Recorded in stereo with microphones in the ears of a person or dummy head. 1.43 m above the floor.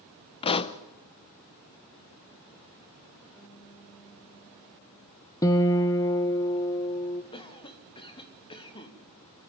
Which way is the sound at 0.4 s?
30° left (ahead or behind).